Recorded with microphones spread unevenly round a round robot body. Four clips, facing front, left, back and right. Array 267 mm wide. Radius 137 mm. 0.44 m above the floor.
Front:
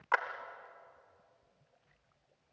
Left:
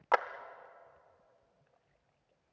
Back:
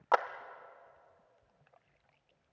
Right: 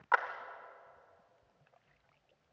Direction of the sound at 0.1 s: 135° left.